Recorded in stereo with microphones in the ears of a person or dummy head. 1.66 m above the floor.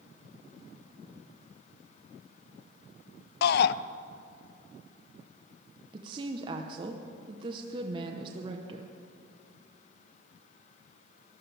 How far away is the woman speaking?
About 1.0 m.